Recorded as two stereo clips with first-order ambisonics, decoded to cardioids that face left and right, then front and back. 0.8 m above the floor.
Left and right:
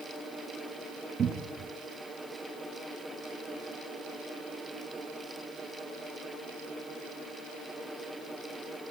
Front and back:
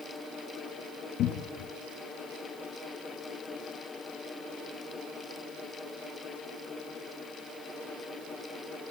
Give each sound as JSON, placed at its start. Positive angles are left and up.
{"t": 1.2, "sound": "a cupboard door", "azimuth_deg": -30, "distance_m": 0.8}